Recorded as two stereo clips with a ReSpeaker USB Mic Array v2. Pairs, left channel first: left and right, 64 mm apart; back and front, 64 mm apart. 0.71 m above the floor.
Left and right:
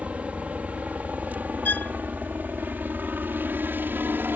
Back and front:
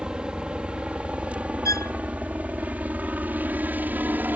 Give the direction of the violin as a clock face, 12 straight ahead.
7 o'clock.